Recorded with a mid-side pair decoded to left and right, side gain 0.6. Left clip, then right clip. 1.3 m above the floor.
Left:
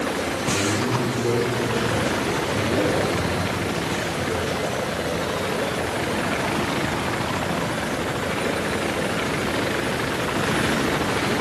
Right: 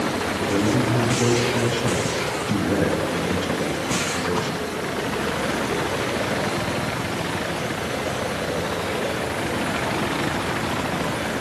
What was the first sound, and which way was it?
A man speaking, 65° right.